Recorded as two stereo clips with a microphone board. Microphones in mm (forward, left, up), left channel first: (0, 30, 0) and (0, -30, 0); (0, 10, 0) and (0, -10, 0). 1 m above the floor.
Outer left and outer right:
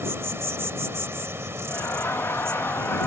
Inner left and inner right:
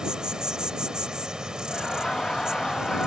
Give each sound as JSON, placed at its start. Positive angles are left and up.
{"t": 0.0, "sound": "an insect", "side_deg": -50}
{"t": 1.7, "sound": "laughter", "side_deg": 45}